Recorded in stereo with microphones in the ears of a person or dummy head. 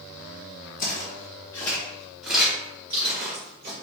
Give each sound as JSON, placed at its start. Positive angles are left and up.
{"t": 0.8, "sound": "footsteps", "side_deg": 40, "distance_m": 1.9}